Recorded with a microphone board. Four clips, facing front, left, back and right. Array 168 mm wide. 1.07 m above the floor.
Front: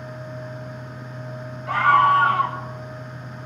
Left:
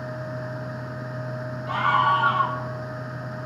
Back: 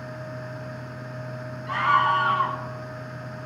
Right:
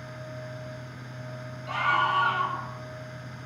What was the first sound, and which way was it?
A scream, 15° left.